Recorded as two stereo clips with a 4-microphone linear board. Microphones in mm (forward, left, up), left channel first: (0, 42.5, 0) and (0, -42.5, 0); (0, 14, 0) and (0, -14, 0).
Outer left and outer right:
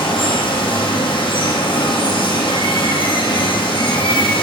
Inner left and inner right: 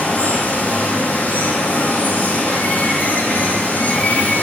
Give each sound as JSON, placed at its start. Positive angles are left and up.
{"t": 0.0, "sound": "running water", "side_deg": 80, "distance_m": 2.5}